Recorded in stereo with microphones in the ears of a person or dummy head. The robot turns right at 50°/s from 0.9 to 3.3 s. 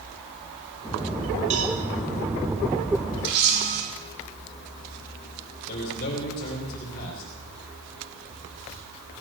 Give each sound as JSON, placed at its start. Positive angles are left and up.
{"t": 1.5, "sound": "a cowbell", "side_deg": -40, "distance_m": 2.0}
{"t": 3.2, "sound": "a camera shutter", "side_deg": -65, "distance_m": 6.5}
{"t": 5.7, "sound": "a man speaking", "side_deg": 50, "distance_m": 3.5}